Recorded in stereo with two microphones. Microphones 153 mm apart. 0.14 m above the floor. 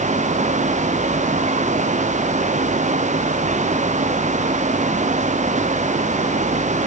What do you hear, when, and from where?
Only background noise.